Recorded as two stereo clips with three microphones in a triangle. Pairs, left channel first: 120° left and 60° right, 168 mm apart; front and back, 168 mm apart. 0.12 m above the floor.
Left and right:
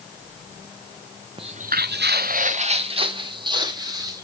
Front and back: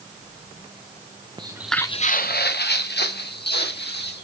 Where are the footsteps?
115° right, 0.8 m; by 4.2 s 10° left, 3 m.